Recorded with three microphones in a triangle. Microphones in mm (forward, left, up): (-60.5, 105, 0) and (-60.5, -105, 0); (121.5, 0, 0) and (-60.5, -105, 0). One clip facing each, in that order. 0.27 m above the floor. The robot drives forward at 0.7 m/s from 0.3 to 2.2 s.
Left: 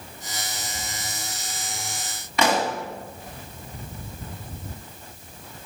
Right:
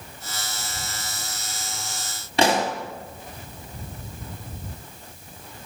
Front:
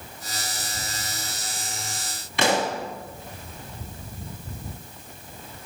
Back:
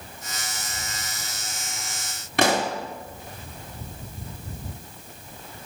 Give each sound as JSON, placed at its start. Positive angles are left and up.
{"t": 2.4, "sound": "a pop", "azimuth_deg": -140, "distance_m": 1.5}